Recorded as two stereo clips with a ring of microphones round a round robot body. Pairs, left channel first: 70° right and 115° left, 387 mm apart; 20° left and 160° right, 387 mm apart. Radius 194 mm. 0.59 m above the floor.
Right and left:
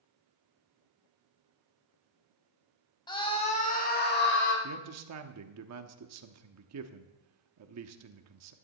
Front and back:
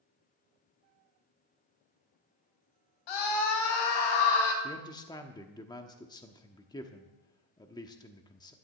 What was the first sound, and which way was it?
A scream, 10° left.